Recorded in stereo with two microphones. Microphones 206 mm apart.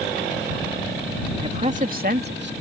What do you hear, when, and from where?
1.4 s a man speaking: 25° right (ahead or behind); by 2.5 s 60° right (ahead or behind)